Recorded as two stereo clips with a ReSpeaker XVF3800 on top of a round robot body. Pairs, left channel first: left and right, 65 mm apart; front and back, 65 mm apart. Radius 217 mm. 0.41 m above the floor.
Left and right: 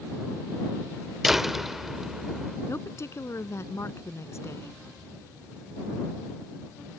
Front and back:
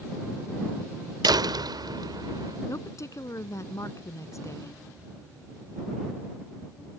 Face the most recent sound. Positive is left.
turn(degrees=45)